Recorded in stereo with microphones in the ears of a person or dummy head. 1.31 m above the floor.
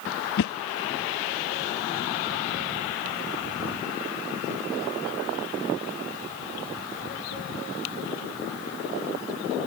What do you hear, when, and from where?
0.4 s a whoosh: 55° left (ahead or behind)